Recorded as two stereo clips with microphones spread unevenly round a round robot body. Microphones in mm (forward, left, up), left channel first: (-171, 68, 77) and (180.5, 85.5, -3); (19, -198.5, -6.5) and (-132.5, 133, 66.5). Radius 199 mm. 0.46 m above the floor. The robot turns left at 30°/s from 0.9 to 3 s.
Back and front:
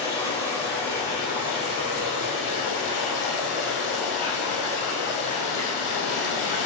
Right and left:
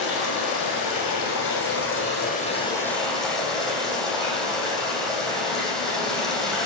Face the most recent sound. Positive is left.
turn(degrees=-155)